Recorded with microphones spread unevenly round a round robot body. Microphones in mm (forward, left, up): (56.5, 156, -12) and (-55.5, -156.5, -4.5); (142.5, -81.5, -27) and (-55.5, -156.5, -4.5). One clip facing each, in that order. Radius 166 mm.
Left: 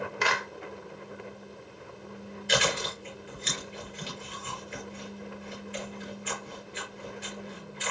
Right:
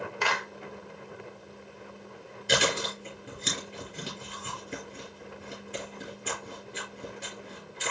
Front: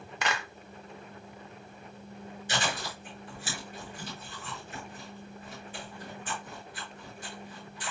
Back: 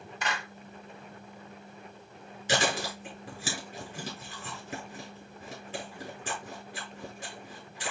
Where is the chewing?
150° right, 6 m.